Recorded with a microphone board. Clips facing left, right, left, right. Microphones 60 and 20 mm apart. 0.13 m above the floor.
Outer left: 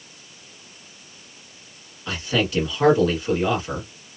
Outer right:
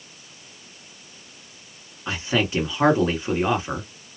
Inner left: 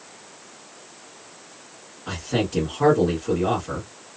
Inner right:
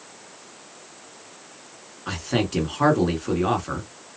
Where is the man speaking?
25° right (ahead or behind), 1.7 m.